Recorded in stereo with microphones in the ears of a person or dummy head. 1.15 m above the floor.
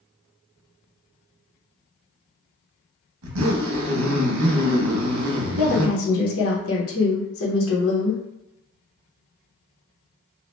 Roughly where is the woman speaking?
Left.